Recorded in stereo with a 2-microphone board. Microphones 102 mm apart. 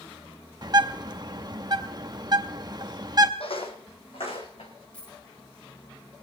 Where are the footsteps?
65° left (ahead or behind), 1.6 m.